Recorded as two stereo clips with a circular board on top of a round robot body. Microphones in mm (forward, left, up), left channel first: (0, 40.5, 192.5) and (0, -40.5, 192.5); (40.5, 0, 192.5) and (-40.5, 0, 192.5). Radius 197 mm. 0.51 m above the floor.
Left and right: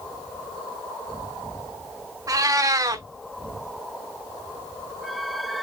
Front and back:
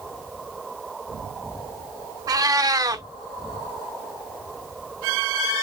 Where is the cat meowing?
135° right, 0.7 m.